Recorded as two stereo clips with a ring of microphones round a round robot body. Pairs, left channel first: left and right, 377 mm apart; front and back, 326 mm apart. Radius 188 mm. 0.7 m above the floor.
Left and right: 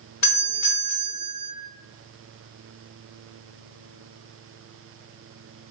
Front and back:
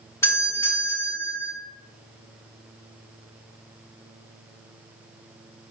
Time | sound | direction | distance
0.2 | a doorbell | 80° left | 1.8 m